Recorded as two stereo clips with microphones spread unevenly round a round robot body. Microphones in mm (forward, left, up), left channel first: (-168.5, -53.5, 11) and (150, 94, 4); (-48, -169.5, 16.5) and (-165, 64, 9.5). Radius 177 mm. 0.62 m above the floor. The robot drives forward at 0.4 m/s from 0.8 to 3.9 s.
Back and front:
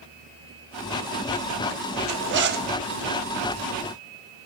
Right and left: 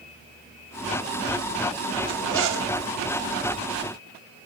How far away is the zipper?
About 0.9 m.